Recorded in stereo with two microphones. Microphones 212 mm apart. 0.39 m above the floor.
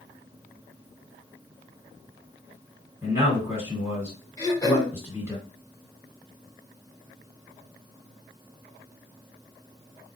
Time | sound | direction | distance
3.0 | a man speaking | 15° right (ahead or behind) | 1.9 m
4.4 | throat clearing | 15° left (ahead or behind) | 1.5 m